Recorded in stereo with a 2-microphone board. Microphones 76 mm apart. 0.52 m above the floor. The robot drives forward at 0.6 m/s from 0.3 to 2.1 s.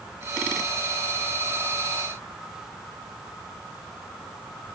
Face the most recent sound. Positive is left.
No sound to turn to.